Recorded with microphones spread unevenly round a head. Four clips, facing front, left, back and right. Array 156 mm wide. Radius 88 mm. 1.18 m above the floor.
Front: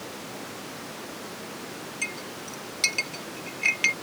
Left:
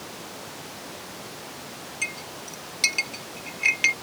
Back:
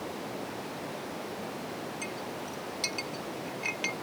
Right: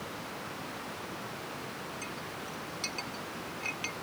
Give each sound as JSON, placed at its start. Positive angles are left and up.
{"t": 2.0, "sound": "a clink", "azimuth_deg": 60}